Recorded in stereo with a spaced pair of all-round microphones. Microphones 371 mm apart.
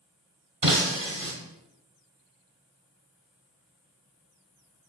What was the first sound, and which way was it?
Breaking glass, 60° right (ahead or behind).